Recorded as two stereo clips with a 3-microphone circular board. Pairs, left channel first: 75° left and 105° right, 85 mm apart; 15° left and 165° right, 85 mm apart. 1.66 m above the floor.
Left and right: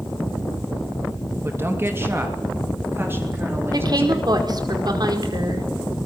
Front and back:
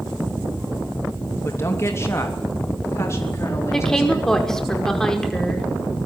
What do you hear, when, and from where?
1.4 s a woman speaking: 45° right, 2.5 m
3.7 s a woman speaking: 70° right, 5 m